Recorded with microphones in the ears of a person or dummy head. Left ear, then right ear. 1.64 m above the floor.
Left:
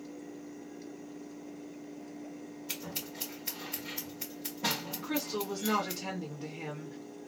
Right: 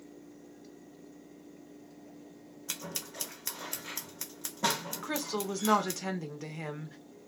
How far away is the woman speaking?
About 1.0 m.